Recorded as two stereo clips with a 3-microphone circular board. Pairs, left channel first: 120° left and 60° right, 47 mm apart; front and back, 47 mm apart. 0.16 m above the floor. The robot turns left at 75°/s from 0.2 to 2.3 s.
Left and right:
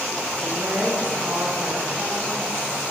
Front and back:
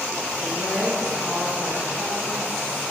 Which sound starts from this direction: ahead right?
A woman speaking, at 0.4 s.